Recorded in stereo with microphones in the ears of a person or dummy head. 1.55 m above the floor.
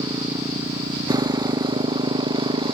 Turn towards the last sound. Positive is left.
turn(degrees=-30)  # may be behind; listen again after turning